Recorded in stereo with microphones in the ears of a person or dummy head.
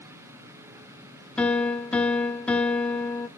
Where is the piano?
5° left (ahead or behind), 0.8 m.